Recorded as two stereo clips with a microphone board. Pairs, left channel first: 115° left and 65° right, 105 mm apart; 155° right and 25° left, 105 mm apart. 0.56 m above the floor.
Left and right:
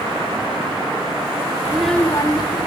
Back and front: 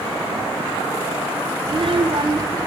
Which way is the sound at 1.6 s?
Straight ahead.